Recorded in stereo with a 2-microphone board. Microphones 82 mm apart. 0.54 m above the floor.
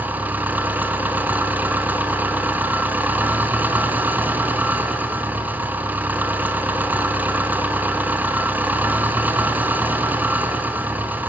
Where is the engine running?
20° right (ahead or behind), 3.5 m.